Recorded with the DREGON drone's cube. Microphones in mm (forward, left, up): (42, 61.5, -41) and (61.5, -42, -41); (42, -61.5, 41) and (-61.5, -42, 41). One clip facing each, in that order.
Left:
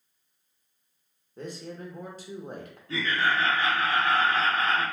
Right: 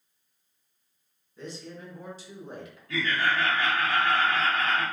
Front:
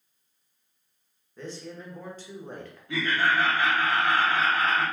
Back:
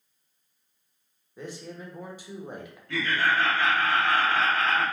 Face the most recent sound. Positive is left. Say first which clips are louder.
# even, front 1 dB
turn(degrees=55)